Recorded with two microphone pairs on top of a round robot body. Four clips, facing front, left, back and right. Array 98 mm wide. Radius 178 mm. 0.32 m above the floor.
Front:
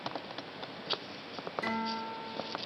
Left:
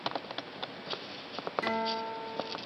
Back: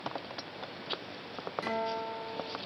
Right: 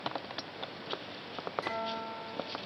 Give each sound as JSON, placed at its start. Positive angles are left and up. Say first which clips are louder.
{"t": 1.6, "sound": "a guitar", "louder": "left 4 dB, back 2 dB", "azimuth_deg": 115, "distance_m": 7.0}